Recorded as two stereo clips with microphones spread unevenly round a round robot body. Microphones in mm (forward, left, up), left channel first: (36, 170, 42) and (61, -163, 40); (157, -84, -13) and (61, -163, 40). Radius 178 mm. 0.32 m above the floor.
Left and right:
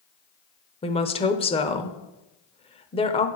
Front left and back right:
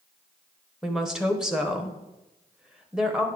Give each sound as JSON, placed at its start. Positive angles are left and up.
{"t": 0.8, "sound": "a woman speaking", "azimuth_deg": 55, "distance_m": 0.8}